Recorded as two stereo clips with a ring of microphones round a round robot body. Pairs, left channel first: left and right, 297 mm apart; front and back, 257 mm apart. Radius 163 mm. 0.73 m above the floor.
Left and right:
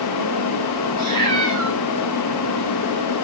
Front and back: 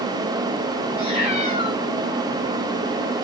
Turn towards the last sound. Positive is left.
turn(degrees=-50)